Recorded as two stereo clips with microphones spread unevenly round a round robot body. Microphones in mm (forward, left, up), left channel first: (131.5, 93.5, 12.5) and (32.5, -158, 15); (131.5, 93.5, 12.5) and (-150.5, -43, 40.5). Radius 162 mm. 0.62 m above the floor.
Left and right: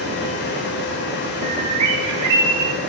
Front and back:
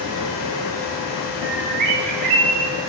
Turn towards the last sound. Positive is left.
turn(degrees=-90)